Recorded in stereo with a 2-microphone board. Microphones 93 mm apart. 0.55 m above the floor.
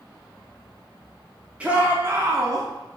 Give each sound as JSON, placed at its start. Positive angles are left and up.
{"t": 1.6, "sound": "a shout", "side_deg": -15, "distance_m": 0.7}